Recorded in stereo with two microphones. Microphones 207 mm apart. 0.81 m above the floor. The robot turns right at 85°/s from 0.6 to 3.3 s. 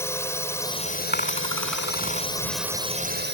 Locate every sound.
0.0 s a drone: 15° left; by 3.4 s 115° right
1.1 s a dropped coin: 50° left (ahead or behind); by 2.3 s 50° right (ahead or behind)